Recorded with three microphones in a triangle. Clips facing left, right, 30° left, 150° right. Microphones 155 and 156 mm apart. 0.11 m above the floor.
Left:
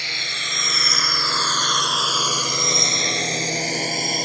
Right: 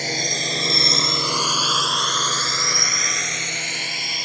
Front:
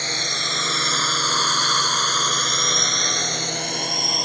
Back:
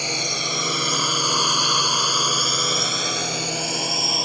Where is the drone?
75° right; by 4.2 s 125° left.